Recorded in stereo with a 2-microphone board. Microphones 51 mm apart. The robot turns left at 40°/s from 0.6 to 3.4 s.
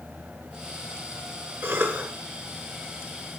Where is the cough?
50° right (ahead or behind), 1.8 m; by 2.1 s 35° right (ahead or behind), 1.8 m.